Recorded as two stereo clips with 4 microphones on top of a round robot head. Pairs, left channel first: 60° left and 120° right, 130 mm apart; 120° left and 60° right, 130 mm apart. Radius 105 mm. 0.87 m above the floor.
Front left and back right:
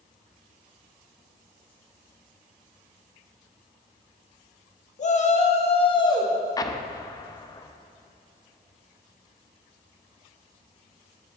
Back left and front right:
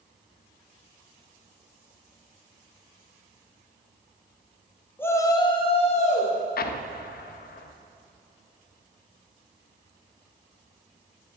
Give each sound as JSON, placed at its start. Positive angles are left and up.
{"t": 5.0, "sound": "a shout", "azimuth_deg": 50, "distance_m": 1.6}
{"t": 6.6, "sound": "an explosion", "azimuth_deg": 125, "distance_m": 0.5}